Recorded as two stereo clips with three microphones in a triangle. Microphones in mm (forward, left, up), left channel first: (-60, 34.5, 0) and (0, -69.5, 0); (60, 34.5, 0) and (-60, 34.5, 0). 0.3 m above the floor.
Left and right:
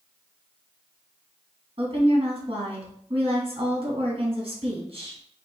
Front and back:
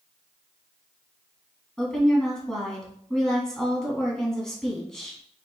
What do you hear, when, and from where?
1.8 s a woman speaking: 85° right, 2.5 m